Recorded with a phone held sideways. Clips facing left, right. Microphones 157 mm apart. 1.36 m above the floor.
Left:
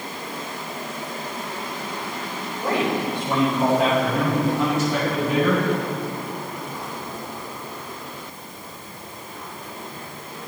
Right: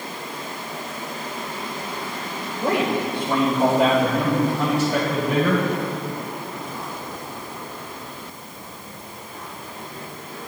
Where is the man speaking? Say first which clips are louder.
Right 1 dB; 30° right (ahead or behind), 4.5 m; by 5.6 s 40° right (ahead or behind), 6 m.